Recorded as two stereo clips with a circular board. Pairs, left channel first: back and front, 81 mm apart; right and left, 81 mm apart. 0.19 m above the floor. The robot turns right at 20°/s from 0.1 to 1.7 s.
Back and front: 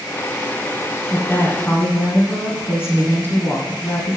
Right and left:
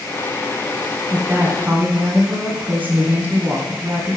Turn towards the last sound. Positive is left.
turn(degrees=145)